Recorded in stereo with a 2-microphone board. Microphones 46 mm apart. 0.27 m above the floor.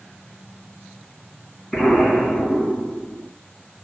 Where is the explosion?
10° left (ahead or behind), 1.7 m.